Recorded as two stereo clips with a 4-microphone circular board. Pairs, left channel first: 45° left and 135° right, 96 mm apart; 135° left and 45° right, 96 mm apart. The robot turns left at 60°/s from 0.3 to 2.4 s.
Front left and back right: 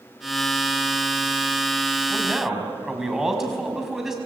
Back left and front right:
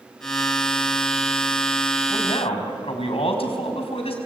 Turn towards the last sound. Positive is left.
turn(degrees=140)